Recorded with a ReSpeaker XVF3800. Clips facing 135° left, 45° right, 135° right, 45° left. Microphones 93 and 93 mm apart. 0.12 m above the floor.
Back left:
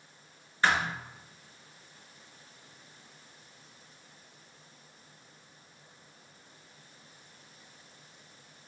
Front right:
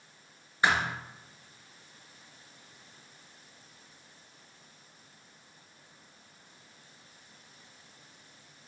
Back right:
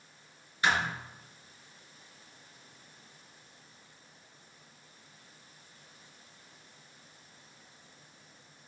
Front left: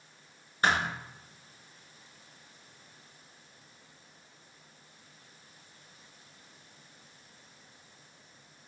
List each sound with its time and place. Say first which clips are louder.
0.6 s a thud: even, front left 1 dB; 25° left, 0.7 m